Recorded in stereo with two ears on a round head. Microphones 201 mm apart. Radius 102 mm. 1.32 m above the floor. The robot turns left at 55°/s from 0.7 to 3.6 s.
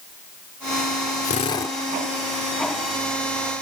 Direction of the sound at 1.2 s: 35° left (ahead or behind).